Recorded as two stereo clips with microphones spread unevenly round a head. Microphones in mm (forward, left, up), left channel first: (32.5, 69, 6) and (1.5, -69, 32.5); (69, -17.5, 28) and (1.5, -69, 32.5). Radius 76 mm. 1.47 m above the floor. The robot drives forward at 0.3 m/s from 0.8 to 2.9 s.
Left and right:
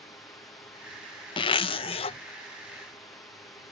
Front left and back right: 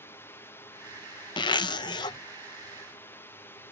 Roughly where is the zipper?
Ahead.